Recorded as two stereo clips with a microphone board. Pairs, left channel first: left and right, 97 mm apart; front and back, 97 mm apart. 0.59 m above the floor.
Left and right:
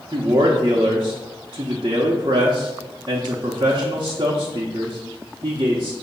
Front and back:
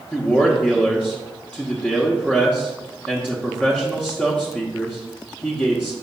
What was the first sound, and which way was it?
A man speaking, 70° right.